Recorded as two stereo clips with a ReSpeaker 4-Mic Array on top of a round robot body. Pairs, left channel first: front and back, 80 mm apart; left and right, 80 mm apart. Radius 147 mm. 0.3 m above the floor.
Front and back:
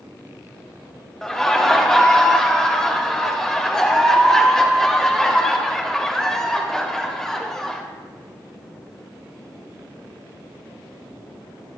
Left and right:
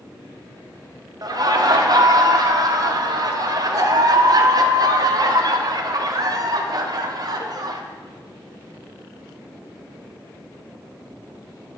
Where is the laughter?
80° right, 1.6 m.